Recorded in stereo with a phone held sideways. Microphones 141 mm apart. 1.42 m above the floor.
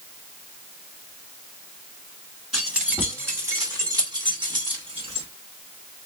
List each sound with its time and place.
2.5 s keys jangling: 5° right (ahead or behind), 2 m; by 5.3 s 45° right (ahead or behind), 3 m